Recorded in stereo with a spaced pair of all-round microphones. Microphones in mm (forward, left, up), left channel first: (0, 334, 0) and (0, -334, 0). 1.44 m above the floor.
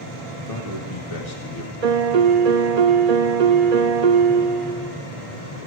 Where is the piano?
70° right (ahead or behind), 0.8 m.